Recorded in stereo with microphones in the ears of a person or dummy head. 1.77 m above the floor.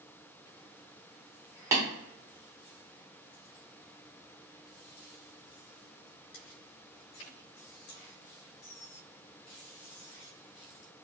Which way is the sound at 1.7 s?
15° right (ahead or behind).